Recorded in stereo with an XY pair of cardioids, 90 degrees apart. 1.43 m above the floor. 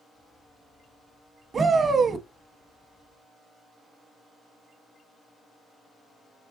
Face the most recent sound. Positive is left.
turn(degrees=-45)